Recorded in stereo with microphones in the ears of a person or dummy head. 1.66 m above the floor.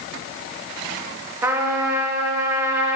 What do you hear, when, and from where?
1.4 s a trumpet: 15° right (ahead or behind), 1.2 m